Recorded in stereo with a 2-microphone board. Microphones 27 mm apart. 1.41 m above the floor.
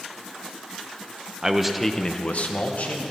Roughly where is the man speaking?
Right.